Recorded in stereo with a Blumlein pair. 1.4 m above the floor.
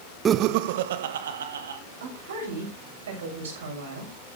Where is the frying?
No frying in this recording.